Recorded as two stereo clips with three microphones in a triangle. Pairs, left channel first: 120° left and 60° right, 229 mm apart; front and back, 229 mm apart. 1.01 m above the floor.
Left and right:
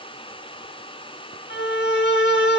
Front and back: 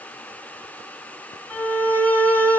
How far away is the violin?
About 2.5 m.